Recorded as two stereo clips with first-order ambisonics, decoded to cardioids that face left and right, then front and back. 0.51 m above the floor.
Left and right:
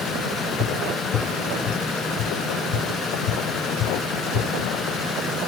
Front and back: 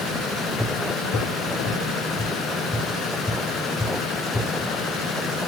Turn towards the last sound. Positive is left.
turn(degrees=70)